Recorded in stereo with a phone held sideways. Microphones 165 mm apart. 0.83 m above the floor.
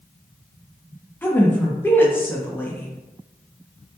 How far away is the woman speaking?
About 0.5 m.